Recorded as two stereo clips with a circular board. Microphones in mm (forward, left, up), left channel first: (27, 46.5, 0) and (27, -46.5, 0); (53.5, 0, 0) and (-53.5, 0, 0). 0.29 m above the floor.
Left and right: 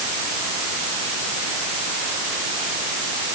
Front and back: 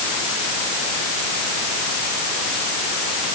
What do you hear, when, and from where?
Only background noise.